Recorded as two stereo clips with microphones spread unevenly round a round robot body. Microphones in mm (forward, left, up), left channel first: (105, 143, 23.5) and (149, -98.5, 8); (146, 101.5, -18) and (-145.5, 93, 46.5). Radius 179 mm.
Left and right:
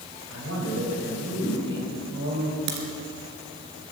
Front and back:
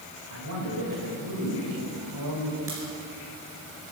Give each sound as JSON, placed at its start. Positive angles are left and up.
{"t": 0.3, "sound": "a man speaking", "azimuth_deg": -135, "distance_m": 4.0}
{"t": 2.7, "sound": "a crack", "azimuth_deg": -100, "distance_m": 2.5}